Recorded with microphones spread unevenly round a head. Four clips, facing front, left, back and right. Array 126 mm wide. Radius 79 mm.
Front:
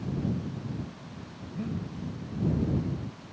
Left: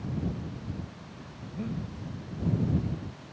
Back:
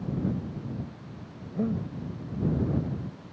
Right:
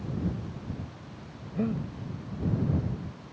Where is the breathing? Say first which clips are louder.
Right 6 dB, back 6 dB; 145° right.